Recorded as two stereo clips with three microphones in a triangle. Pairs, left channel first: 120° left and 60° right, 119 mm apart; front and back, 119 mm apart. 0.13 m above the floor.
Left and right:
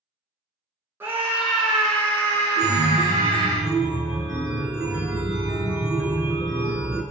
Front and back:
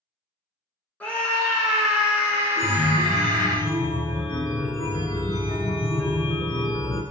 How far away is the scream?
About 1.1 m.